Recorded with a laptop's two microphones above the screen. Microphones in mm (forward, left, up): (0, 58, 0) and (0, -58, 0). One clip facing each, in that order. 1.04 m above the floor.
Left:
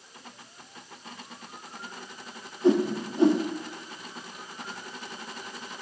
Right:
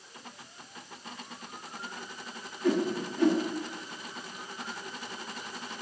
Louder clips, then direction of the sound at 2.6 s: Left 5 dB; 25° left (ahead or behind).